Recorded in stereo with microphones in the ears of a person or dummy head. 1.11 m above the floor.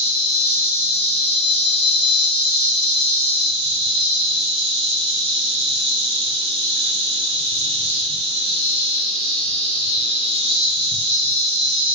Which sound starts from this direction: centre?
An insect, at 0.0 s.